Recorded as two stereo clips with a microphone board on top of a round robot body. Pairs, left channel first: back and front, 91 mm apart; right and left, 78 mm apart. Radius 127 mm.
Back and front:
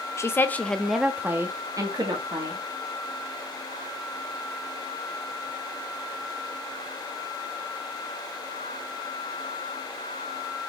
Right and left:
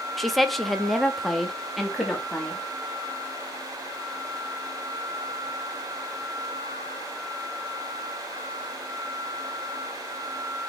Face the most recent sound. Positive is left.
turn(degrees=0)